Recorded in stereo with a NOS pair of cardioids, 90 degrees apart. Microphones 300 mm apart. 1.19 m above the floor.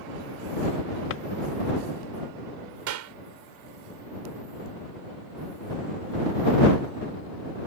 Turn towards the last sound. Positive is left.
turn(degrees=-70)